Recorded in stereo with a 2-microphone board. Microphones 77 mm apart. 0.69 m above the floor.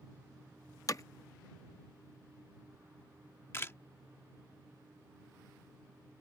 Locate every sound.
0.9 s hammering: 45° left (ahead or behind)
3.5 s a camera shutter: 30° left (ahead or behind)